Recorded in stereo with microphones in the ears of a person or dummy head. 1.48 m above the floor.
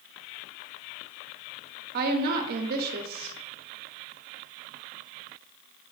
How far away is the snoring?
I don't hear snoring.